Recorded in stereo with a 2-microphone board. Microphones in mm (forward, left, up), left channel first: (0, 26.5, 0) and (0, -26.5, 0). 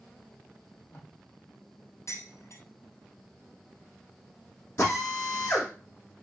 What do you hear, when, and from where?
0.6 s tape being pulled: 40° left (ahead or behind), 4.5 m
2.1 s dishes clattering: 60° left (ahead or behind), 3.5 m
4.8 s a drill: 45° left (ahead or behind), 7.5 m